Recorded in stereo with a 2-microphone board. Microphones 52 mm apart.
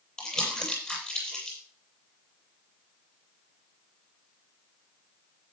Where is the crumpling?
20° left (ahead or behind), 8.5 m.